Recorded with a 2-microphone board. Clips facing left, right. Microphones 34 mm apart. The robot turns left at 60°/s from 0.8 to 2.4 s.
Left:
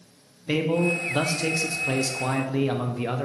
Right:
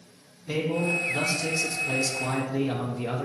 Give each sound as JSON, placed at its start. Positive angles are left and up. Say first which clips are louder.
{"t": 0.5, "sound": "a man speaking", "louder": "left 3 dB", "azimuth_deg": 125, "distance_m": 0.5}